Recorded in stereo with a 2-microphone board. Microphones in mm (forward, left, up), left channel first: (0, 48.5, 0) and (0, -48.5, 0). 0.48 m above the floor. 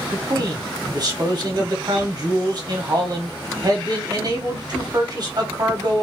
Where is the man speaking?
45° right (ahead or behind), 1.3 m.